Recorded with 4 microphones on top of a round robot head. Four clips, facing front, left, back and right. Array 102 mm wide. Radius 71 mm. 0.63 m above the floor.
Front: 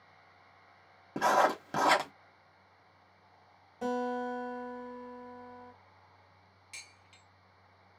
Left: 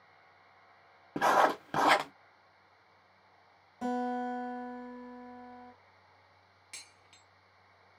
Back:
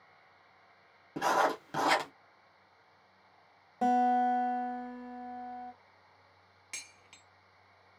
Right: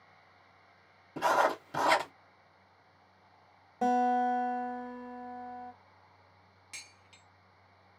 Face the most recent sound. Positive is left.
turn(degrees=180)